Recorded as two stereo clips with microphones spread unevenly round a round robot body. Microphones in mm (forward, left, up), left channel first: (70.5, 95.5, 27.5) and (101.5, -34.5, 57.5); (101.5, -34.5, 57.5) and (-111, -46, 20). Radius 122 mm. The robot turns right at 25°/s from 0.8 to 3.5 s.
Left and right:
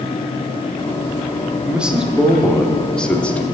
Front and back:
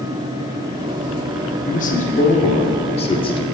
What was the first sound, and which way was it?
A man speaking, 20° left.